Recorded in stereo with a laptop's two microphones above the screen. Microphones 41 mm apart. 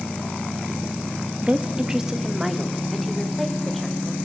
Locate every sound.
1.4 s a woman speaking: 35° right (ahead or behind), 1.1 m; by 4.1 s centre (ahead or behind), 5 m